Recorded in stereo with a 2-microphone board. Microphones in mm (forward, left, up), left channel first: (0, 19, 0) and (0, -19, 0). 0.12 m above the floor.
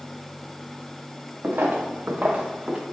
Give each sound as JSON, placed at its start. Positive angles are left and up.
{"t": 1.4, "sound": "footsteps", "side_deg": -70, "distance_m": 0.8}